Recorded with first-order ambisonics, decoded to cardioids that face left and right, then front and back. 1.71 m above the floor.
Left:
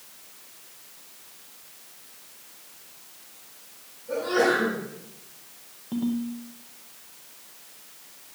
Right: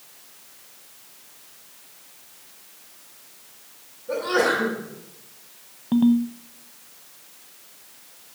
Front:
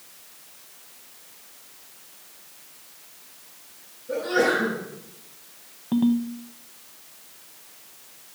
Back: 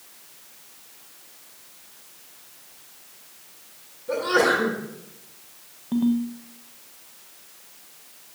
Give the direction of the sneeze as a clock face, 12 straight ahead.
5 o'clock.